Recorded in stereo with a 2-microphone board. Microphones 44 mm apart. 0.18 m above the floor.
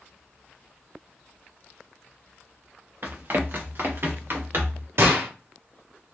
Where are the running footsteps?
50° right (ahead or behind), 1.0 m; by 4.9 s 55° right (ahead or behind), 2.0 m.